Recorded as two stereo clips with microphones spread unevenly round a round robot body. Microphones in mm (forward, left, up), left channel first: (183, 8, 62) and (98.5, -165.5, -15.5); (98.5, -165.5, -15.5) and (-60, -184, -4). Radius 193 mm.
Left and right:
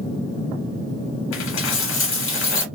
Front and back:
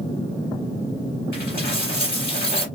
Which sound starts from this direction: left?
A dropped coin, at 1.3 s.